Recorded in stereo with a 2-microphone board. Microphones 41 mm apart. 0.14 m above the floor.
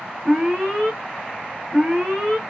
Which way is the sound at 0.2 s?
20° right (ahead or behind).